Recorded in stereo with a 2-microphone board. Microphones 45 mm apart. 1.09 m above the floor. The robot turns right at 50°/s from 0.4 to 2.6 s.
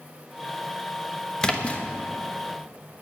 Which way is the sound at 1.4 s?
15° left (ahead or behind).